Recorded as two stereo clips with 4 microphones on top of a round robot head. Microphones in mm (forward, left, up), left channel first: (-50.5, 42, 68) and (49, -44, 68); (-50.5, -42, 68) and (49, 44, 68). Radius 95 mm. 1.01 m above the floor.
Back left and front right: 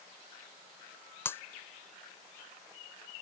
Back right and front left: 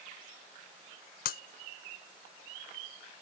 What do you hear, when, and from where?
1.2 s breaking glass: 150° right